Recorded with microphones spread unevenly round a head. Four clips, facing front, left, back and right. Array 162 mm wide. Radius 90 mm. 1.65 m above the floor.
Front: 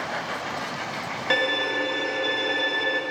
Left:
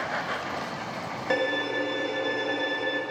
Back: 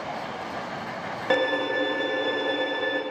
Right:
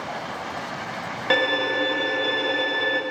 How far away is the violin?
About 1.0 m.